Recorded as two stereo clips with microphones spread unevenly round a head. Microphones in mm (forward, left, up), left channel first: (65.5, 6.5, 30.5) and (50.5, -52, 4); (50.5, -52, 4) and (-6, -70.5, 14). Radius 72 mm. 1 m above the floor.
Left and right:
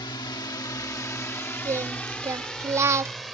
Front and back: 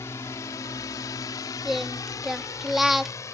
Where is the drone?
75° left; by 3.4 s 15° right.